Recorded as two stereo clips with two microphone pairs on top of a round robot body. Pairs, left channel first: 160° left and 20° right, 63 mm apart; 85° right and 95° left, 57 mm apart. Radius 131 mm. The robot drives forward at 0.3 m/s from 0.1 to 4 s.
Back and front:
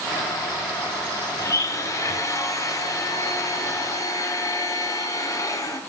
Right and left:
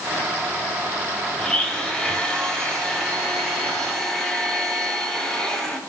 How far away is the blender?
About 3 m.